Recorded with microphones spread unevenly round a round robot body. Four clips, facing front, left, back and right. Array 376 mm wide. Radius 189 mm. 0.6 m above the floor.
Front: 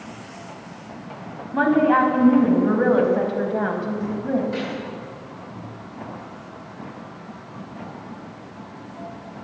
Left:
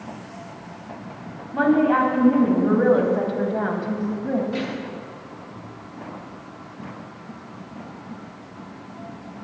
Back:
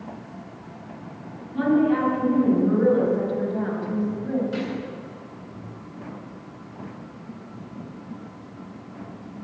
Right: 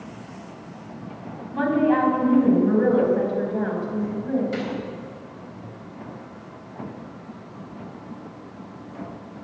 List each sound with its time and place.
1.5 s a woman speaking: 25° left, 4.5 m; by 4.4 s 55° left, 4.5 m
4.5 s a gunshot: 120° right, 4 m